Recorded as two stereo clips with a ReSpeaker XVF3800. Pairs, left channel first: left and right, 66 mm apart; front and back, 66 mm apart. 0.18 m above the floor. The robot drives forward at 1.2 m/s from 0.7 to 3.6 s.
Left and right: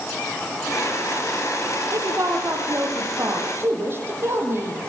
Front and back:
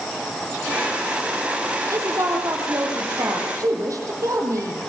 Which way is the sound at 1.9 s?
135° right.